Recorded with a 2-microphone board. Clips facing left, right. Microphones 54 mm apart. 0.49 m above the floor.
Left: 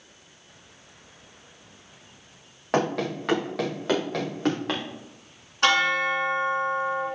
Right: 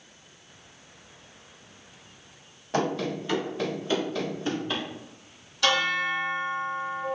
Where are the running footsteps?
65° left (ahead or behind), 2.5 m; by 4.8 s 80° left, 3.5 m.